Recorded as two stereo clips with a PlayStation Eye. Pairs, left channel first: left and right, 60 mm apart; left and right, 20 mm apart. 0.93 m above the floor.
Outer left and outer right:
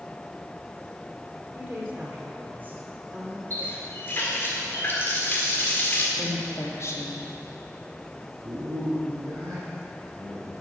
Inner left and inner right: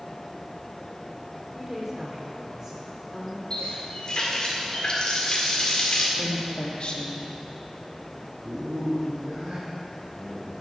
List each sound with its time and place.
1.6 s a woman speaking: 30° right (ahead or behind), 2.5 m
3.5 s a running tap: 40° left (ahead or behind), 1.8 m
6.2 s a woman speaking: 50° left (ahead or behind), 1.5 m
8.4 s a man speaking: 65° right (ahead or behind), 2.5 m